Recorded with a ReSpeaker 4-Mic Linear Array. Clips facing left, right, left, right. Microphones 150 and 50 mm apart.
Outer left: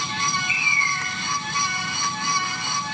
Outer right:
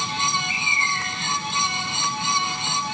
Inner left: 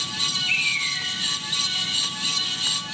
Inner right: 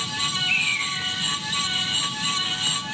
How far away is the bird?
About 3 m.